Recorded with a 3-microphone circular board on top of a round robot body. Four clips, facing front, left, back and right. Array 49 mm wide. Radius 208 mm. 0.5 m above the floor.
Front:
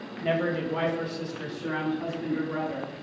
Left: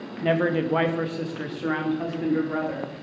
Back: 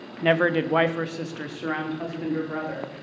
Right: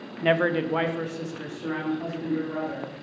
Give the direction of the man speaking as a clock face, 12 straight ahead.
5 o'clock.